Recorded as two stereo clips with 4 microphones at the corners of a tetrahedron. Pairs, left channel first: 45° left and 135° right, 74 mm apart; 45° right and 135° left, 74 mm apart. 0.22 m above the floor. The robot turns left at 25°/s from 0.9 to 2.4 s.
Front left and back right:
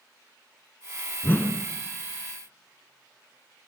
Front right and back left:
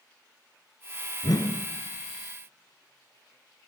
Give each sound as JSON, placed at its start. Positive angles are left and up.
{"t": 1.2, "sound": "a whoosh", "azimuth_deg": -15, "distance_m": 0.7}